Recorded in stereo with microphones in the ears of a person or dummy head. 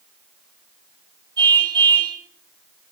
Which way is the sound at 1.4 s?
25° right (ahead or behind).